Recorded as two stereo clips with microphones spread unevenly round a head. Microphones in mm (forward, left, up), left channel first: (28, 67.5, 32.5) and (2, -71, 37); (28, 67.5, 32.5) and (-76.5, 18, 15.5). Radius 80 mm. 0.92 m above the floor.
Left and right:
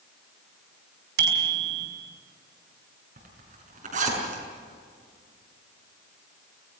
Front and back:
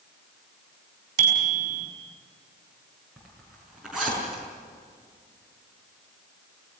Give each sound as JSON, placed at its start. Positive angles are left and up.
{"t": 1.2, "sound": "a bicycle bell", "azimuth_deg": -100, "distance_m": 5.5}
{"t": 3.2, "sound": "a zipper", "azimuth_deg": -65, "distance_m": 6.0}